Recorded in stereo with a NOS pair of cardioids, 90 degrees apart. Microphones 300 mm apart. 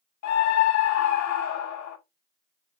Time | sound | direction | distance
0.2 | a scream | 65° left | 1.1 m